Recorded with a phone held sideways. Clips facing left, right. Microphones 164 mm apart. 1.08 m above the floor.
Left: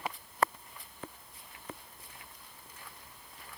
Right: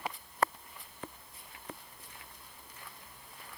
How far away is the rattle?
No rattle in this recording.